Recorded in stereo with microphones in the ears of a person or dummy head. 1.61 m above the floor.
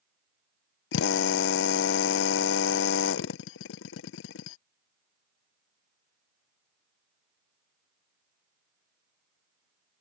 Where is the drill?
65° left (ahead or behind).